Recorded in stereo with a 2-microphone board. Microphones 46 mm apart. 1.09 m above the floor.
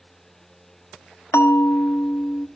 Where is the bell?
85° left, 1.4 m.